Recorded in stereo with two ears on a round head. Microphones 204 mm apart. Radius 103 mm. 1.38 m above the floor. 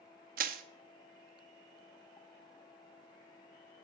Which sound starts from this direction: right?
Crushing, at 0.4 s.